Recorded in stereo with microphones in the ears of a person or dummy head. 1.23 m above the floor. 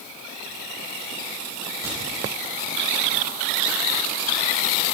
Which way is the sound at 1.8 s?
20° right (ahead or behind).